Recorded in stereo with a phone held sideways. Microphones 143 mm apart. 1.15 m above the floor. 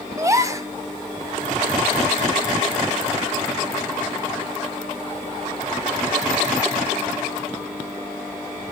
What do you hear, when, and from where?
0.2 s a gasp: 20° right (ahead or behind), 0.8 m